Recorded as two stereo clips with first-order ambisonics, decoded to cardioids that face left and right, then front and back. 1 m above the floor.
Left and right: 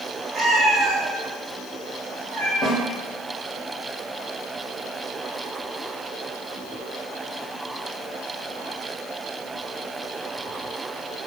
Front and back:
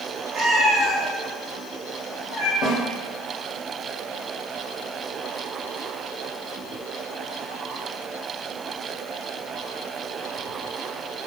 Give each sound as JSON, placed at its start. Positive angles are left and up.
{"t": 0.3, "sound": "a cat meowing", "azimuth_deg": -135, "distance_m": 1.3}
{"t": 2.6, "sound": "a snare drum", "azimuth_deg": 40, "distance_m": 0.6}